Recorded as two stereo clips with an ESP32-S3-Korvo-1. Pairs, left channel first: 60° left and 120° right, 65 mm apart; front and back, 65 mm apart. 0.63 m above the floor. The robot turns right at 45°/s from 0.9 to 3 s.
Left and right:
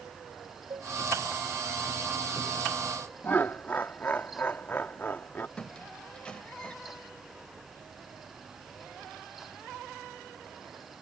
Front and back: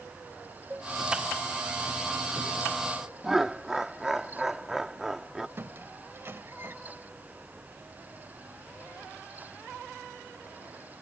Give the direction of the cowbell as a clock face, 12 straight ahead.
4 o'clock.